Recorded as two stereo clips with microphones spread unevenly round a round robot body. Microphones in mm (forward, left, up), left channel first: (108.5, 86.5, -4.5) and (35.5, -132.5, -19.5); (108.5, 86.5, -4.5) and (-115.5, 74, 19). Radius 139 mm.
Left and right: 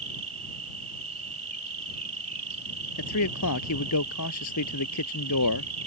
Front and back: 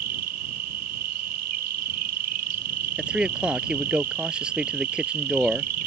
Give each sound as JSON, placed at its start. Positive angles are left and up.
{"t": 0.0, "sound": "an insect", "azimuth_deg": -175}
{"t": 3.0, "sound": "a man speaking", "azimuth_deg": 100}